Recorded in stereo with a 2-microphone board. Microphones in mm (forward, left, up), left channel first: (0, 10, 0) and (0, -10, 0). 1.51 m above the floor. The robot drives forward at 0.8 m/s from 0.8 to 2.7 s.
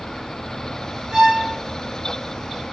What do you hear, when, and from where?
1.1 s a violin: 40° right (ahead or behind), 7 m; by 1.5 s 35° right (ahead or behind), 7.5 m